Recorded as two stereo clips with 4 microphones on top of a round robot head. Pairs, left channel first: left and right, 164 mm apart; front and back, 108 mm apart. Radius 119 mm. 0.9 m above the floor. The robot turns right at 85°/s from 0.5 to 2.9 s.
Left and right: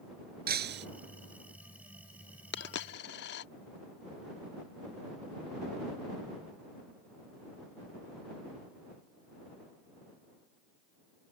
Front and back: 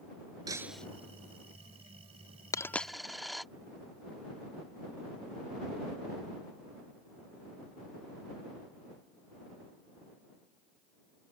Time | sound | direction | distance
0.5 | breaking glass | 110° right | ?
2.5 | a dropped coin | 60° left | ?